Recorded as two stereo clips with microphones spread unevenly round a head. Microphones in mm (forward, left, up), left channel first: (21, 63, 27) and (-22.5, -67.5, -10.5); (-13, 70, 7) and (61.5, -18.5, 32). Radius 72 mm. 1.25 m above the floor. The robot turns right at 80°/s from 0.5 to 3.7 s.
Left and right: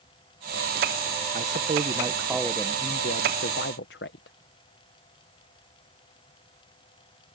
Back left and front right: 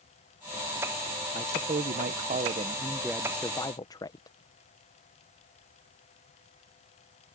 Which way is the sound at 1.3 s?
105° right.